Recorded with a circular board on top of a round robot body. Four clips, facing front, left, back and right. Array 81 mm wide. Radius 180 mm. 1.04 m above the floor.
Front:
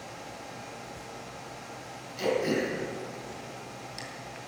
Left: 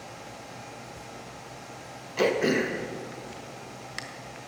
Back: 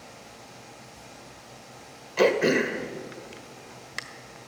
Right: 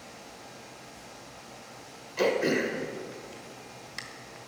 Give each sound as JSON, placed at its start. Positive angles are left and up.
{"t": 2.2, "sound": "throat clearing", "azimuth_deg": 155, "distance_m": 1.4}